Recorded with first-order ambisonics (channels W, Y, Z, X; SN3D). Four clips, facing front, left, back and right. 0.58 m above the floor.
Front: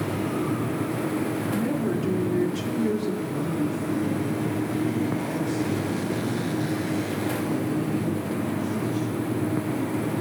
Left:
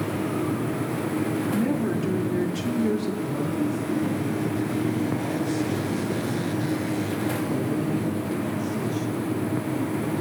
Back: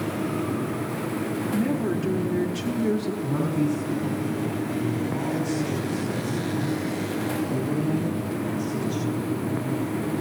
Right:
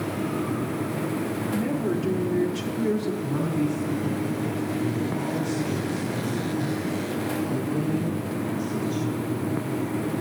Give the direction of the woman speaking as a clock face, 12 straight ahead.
7 o'clock.